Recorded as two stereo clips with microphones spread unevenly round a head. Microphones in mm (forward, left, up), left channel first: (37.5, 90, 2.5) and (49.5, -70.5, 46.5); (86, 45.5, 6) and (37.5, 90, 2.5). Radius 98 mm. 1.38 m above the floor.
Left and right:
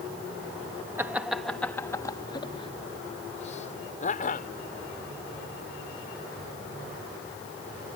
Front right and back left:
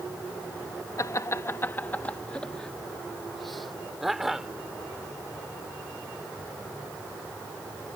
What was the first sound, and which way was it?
Laughter, 10° right.